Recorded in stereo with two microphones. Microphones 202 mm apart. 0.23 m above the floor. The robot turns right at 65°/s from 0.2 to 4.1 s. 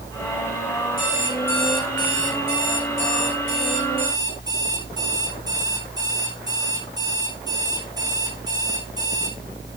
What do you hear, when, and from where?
1.0 s an alarm clock: 135° left, 5.5 m; by 9.4 s 20° right, 5.5 m